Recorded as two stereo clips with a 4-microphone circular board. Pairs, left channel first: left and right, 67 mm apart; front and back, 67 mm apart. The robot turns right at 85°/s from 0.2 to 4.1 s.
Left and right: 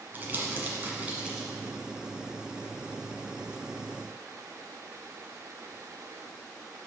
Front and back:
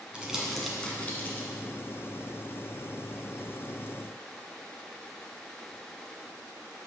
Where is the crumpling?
120° right, 1.7 m; by 1.5 s 10° right, 1.7 m.